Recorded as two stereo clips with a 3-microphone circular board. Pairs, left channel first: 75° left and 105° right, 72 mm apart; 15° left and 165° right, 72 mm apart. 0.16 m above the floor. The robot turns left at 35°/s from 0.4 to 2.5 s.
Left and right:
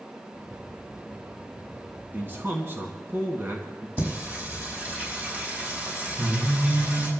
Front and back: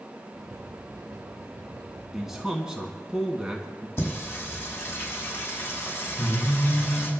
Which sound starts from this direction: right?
A man speaking, at 2.1 s.